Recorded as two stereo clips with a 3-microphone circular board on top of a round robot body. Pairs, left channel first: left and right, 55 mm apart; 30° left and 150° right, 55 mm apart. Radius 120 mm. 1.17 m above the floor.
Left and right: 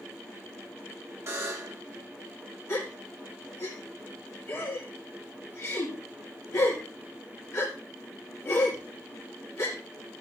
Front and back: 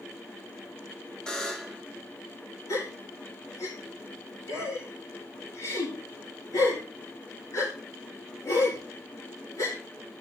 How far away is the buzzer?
About 1.3 m.